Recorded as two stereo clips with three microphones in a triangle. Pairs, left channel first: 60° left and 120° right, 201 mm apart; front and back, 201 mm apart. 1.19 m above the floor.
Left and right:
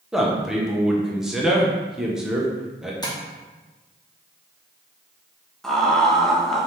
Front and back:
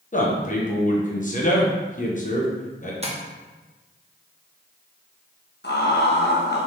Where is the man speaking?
35° right, 1.0 m.